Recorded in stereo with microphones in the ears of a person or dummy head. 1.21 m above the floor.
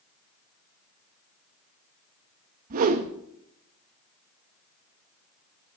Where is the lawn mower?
No lawn mower in this recording.